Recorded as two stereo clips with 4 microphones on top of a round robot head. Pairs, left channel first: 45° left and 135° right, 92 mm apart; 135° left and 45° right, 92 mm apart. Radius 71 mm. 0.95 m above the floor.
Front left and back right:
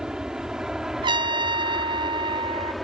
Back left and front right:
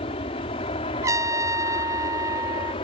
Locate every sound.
0.0 s an aircraft: 140° left; by 2.8 s 135° left
1.0 s a trumpet: 100° right